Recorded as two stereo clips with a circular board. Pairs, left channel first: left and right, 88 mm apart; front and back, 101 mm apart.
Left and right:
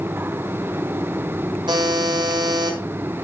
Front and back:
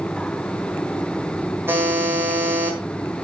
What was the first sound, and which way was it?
A buzzer, 115° right.